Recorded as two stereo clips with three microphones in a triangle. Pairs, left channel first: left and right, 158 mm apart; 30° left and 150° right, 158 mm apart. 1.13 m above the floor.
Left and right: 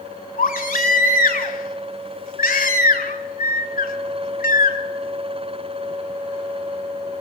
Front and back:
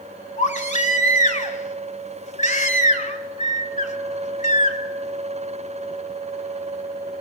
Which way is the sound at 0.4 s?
70° left.